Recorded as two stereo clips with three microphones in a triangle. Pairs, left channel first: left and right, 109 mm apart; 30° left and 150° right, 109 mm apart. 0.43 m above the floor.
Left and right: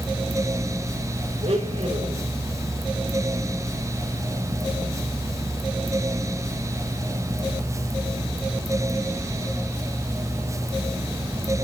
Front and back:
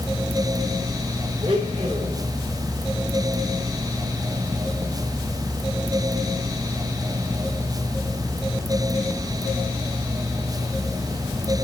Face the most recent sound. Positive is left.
turn(degrees=-115)